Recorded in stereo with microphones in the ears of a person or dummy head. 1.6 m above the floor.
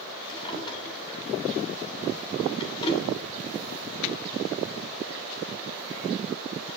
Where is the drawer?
30° left (ahead or behind), 2.5 m.